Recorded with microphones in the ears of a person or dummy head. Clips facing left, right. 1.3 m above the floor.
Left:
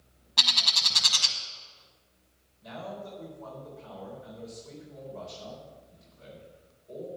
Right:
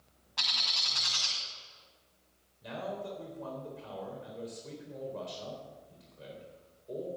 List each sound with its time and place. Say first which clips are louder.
0.4 s a bird: left 6 dB; 50° left (ahead or behind), 1.1 m
2.6 s a man speaking: right 1 dB; 45° right (ahead or behind), 4 m